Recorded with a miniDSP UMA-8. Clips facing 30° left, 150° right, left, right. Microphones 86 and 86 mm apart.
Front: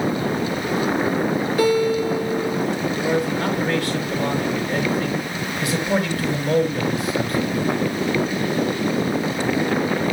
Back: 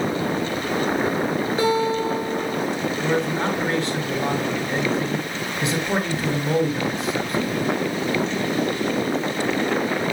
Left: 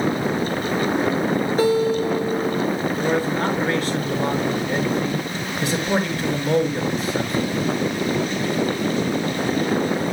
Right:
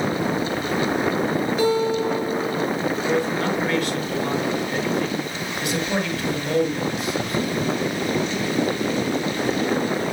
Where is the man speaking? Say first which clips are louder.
Front 1 dB, left 2 dB; 145° left, 7 m.